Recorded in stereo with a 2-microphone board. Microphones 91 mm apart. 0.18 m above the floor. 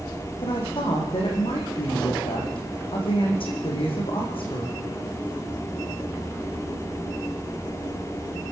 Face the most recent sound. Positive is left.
turn(degrees=80)